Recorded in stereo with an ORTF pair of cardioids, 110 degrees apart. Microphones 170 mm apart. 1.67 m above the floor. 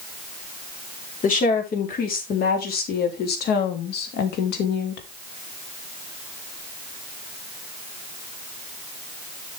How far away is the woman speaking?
About 4 m.